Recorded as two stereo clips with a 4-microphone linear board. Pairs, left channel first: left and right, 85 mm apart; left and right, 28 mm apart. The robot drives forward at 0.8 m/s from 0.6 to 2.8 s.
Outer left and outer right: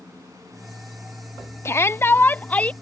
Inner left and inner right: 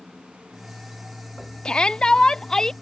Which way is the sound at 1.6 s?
30° left (ahead or behind).